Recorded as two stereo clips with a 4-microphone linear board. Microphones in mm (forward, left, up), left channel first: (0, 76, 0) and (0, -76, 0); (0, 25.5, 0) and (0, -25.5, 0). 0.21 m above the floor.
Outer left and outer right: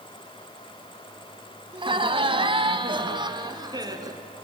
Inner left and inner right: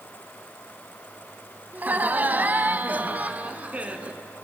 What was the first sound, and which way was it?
Laughter, 35° right (ahead or behind).